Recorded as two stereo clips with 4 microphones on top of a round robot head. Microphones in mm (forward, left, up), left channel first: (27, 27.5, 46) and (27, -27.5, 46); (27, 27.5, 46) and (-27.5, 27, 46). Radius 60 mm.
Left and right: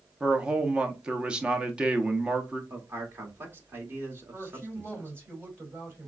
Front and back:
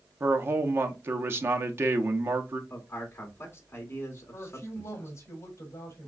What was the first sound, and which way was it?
A man speaking, 155° right.